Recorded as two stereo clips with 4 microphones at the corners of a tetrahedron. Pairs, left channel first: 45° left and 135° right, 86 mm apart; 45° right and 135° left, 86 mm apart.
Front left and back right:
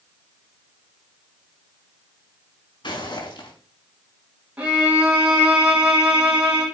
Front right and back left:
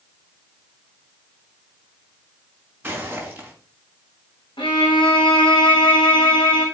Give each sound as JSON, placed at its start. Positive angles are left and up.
{"t": 2.8, "sound": "footsteps", "azimuth_deg": 65, "distance_m": 4.0}
{"t": 4.6, "sound": "a violin", "azimuth_deg": -60, "distance_m": 3.5}